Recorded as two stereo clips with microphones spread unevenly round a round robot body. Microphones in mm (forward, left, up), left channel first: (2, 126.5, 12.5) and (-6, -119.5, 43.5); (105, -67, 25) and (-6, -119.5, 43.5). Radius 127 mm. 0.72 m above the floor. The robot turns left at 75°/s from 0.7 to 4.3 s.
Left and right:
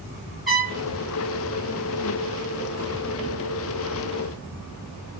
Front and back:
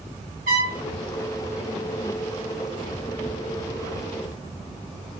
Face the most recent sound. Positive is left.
turn(degrees=-90)